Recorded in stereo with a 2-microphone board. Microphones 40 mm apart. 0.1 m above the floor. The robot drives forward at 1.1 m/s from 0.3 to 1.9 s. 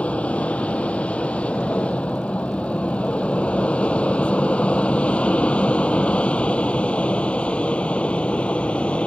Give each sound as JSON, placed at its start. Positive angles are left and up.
{"t": 0.0, "sound": "an aircraft", "side_deg": 30}